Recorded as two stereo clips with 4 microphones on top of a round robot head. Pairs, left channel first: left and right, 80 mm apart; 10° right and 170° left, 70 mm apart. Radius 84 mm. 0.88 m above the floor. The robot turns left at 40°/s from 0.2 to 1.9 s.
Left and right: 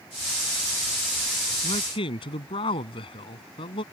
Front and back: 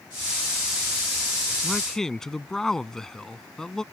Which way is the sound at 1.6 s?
80° left.